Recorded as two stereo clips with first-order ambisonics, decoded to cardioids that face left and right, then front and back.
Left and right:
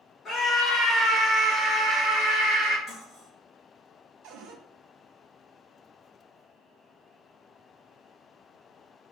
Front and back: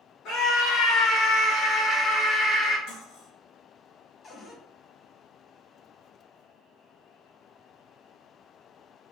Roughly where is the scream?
Ahead left.